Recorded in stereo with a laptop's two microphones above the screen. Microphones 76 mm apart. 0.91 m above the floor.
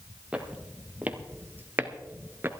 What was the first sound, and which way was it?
Footsteps, 15° right (ahead or behind).